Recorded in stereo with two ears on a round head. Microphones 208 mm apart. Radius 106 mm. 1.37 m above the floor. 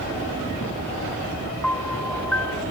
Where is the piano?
5° left (ahead or behind), 0.9 m.